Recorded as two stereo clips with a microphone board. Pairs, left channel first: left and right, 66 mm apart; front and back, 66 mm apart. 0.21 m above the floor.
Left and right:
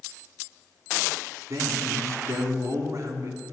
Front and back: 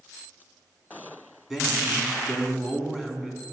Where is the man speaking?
100° right, 2.5 m.